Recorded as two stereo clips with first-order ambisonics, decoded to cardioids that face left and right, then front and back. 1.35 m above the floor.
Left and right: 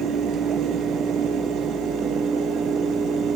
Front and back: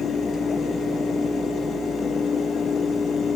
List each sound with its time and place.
Only background noise.